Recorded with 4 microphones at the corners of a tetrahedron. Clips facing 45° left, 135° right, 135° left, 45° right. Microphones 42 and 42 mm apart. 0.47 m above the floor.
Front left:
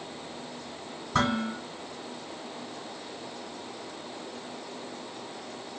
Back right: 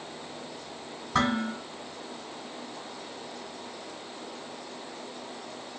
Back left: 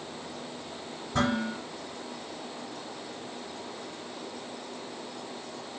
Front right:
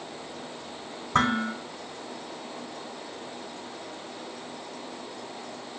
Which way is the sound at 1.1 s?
55° right.